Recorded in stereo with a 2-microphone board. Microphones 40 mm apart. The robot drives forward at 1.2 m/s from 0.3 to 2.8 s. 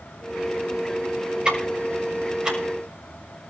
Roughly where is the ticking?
Centre.